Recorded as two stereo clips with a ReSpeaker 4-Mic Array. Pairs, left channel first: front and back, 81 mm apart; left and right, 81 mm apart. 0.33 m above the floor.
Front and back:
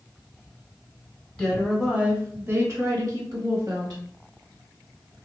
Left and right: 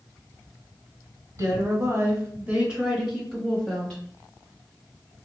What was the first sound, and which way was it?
A woman speaking, 85° right.